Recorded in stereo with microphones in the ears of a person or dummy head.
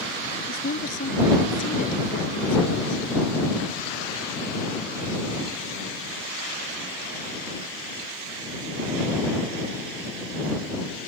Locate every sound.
0.5 s a woman speaking: 50° left (ahead or behind)